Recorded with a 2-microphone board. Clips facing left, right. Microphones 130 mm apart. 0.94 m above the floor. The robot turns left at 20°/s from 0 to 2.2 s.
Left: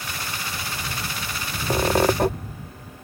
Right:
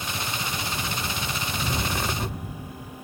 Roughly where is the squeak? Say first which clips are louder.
Left 13 dB; left.